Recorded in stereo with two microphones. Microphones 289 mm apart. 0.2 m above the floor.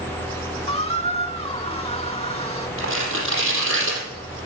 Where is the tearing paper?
50° right (ahead or behind), 4.5 m.